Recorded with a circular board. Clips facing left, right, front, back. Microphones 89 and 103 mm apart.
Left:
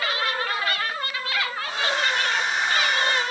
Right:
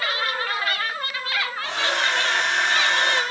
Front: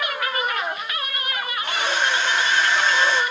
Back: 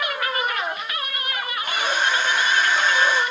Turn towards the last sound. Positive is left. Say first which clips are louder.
# right 2 dB, even
turn(degrees=-100)